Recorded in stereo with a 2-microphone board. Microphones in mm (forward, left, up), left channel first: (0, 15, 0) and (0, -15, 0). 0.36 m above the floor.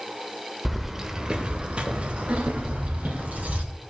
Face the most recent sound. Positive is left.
turn(degrees=-65)  # may be behind; listen again after turning